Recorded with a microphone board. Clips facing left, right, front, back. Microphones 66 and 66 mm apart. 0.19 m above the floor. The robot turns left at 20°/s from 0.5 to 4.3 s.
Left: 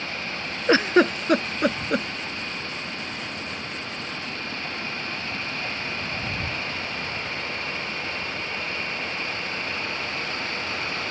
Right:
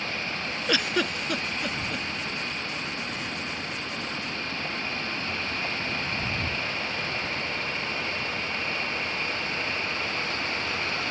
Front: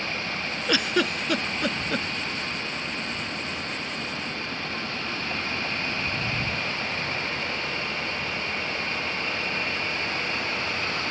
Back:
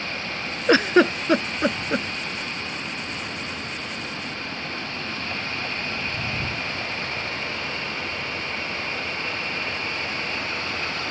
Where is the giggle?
140° left; by 2.1 s 110° left.